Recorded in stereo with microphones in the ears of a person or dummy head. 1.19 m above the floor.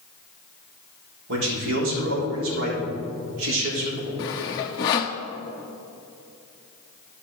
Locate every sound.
1.3 s a man speaking: 70° right (ahead or behind), 3.5 m
4.2 s sawing: 20° left (ahead or behind), 0.6 m